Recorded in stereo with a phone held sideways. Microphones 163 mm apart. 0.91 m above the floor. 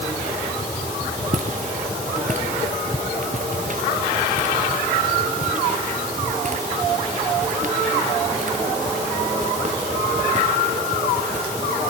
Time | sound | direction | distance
1.3 | footsteps | 50° right (ahead or behind) | ?